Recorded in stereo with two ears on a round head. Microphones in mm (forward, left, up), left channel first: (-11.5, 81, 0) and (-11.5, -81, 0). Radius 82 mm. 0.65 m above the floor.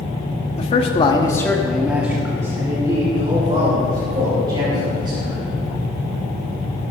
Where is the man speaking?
35° left (ahead or behind), 1.4 m; by 5.4 s 30° right (ahead or behind), 5 m.